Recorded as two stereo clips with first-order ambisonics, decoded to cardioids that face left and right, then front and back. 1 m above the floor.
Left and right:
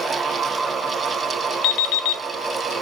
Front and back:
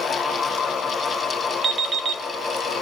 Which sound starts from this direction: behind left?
An alarm clock, at 1.6 s.